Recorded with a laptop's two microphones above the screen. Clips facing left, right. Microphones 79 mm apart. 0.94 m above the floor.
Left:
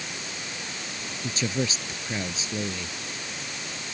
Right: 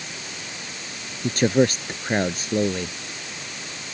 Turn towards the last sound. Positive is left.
turn(degrees=-55)  # may be behind; listen again after turning